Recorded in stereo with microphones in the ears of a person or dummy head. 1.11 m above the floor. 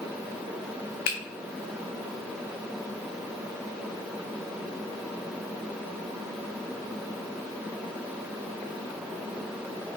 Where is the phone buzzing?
No phone buzzing in this recording.